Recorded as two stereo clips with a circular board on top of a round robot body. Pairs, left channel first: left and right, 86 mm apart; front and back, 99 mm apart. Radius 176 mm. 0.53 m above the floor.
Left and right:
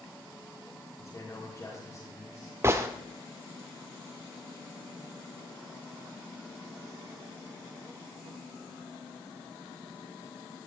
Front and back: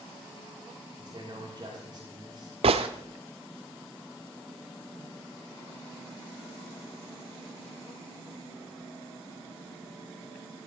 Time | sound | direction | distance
1.0 | a man speaking | 140° left | 6.5 m
2.6 | a gunshot | 155° right | 0.5 m